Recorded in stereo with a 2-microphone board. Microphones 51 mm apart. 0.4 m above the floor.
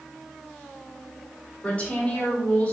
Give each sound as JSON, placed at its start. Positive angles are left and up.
{"t": 1.6, "sound": "a woman speaking", "side_deg": 25, "distance_m": 1.6}